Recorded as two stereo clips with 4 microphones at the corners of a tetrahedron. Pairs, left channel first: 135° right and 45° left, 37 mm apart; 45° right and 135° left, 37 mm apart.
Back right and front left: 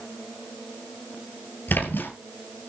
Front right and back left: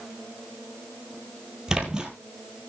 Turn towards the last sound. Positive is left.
turn(degrees=-155)